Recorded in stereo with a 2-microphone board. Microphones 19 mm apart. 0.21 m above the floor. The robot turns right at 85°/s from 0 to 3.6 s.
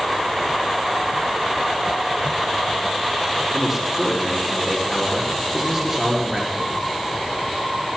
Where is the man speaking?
15° right (ahead or behind), 4.5 m; by 6.7 s 20° right (ahead or behind), 4.5 m.